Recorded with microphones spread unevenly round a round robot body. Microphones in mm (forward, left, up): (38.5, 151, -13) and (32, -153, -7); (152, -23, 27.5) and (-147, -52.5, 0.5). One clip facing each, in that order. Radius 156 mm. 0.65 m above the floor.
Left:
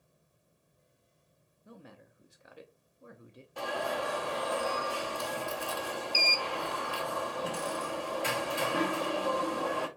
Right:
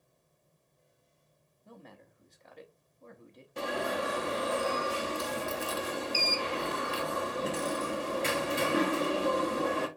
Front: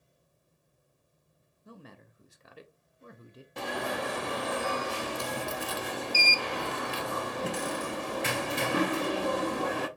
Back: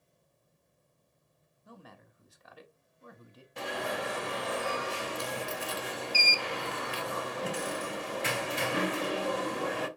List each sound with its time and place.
1.6 s a man speaking: 25° left, 0.5 m
3.6 s an alarm: 30° right, 0.6 m